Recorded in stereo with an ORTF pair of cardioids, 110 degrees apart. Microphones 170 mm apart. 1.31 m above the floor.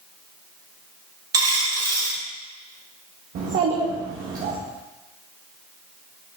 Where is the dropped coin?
25° right, 2.5 m.